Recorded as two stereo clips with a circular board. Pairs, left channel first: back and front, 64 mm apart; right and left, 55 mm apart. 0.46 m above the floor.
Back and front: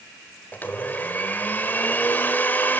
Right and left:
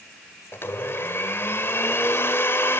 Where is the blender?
125° right, 1.9 m.